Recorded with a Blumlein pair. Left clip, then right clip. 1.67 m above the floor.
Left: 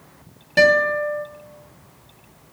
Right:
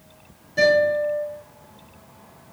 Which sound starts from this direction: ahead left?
A guitar, at 0.6 s.